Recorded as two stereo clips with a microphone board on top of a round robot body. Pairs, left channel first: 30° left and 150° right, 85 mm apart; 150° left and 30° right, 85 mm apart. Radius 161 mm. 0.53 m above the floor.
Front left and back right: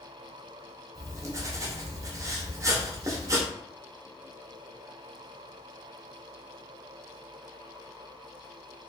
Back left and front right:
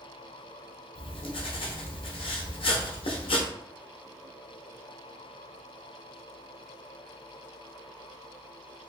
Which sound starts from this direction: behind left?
Writing, at 0.9 s.